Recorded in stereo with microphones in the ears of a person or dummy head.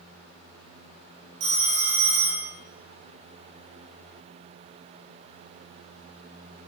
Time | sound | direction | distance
1.4 | a phone ringing | 40° right (ahead or behind) | 0.6 m